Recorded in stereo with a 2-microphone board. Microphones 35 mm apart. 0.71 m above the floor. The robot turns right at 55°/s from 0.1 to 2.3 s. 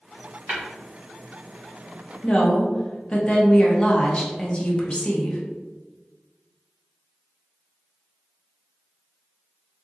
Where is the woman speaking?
30° left (ahead or behind), 0.7 m.